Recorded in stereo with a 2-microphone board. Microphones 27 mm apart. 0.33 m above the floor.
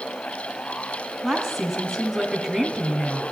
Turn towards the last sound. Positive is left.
turn(degrees=-10)  # may be behind; listen again after turning